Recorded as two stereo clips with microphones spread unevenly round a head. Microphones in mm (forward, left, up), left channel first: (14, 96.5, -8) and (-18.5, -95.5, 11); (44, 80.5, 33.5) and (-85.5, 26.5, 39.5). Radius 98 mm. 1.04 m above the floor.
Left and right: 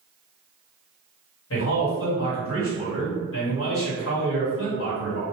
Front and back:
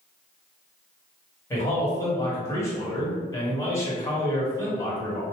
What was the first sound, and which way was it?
A man speaking, 90° left.